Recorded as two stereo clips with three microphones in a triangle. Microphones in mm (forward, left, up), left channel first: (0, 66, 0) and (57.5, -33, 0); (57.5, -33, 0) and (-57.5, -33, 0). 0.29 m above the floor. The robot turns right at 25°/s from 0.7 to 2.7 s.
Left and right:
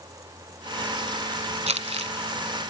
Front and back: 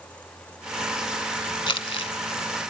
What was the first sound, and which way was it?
Crumpling, 40° right.